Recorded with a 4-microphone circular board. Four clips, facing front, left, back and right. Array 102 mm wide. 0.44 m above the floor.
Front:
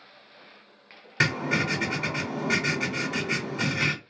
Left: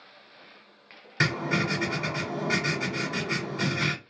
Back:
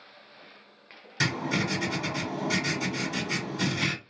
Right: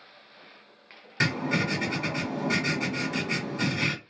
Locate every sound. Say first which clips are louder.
1.2 s writing: even, front 3 dB; 5° left, 1.6 m